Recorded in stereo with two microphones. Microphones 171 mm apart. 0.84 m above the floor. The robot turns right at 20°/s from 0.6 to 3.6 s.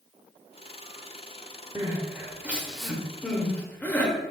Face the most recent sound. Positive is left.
turn(degrees=10)  # may be behind; listen again after turning